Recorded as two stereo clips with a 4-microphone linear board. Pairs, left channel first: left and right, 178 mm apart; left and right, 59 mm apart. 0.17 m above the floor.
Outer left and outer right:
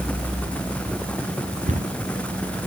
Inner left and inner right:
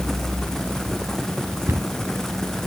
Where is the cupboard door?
45° right (ahead or behind), 1.5 m.